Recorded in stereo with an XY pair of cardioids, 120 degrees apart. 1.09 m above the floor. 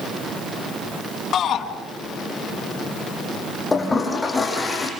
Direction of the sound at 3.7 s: 20° left.